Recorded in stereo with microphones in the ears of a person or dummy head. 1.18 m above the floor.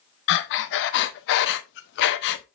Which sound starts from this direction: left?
Breathing, at 0.3 s.